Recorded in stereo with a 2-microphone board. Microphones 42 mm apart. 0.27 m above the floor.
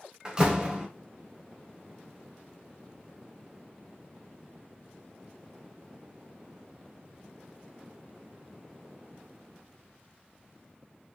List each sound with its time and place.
0.2 s a door slam: 20° right (ahead or behind), 1.1 m